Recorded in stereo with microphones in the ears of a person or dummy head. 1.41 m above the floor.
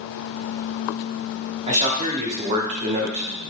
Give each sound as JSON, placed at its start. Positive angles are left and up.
{"t": 1.7, "sound": "a man speaking", "side_deg": -45, "distance_m": 1.0}